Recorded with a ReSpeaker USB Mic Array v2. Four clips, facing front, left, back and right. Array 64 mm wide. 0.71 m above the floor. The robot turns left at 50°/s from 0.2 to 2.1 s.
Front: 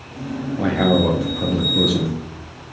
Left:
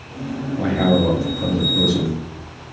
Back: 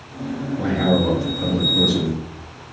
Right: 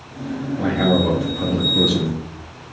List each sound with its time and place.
0.6 s a man speaking: 10° left, 0.5 m; by 2.2 s 65° right, 0.5 m